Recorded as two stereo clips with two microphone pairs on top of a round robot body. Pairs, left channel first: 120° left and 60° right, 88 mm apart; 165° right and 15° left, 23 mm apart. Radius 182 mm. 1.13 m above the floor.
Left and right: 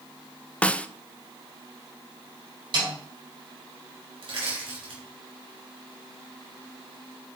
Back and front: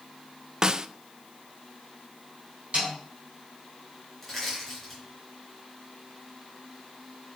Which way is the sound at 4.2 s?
80° right.